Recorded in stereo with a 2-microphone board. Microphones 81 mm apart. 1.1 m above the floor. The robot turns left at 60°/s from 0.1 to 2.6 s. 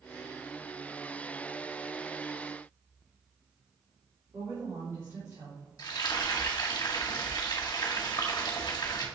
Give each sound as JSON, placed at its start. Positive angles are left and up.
{"t": 4.3, "sound": "a woman speaking", "side_deg": -30, "distance_m": 3.5}
{"t": 5.8, "sound": "frying", "side_deg": 60, "distance_m": 1.9}